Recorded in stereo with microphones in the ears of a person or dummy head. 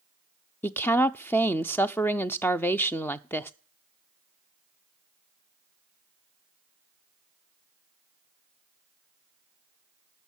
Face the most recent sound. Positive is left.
turn(degrees=5)  # may be behind; listen again after turning